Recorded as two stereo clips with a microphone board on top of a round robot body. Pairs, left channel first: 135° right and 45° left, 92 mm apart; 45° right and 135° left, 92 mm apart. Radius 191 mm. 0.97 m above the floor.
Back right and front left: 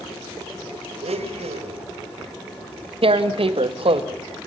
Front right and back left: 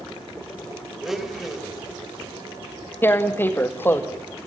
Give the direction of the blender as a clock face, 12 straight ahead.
10 o'clock.